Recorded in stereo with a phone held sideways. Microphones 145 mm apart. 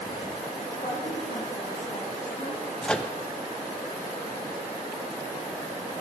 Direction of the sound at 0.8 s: 55° left (ahead or behind).